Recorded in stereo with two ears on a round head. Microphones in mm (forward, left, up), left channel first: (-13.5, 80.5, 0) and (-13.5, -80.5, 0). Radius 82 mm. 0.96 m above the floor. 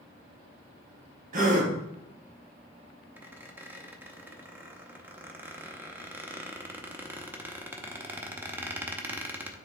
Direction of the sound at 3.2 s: 10° right (ahead or behind).